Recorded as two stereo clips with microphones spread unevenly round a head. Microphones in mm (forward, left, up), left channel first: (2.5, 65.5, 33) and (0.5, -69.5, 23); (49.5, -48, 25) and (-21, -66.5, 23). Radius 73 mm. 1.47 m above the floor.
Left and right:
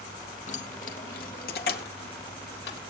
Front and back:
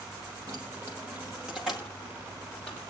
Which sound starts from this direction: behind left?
Keys jangling, at 0.5 s.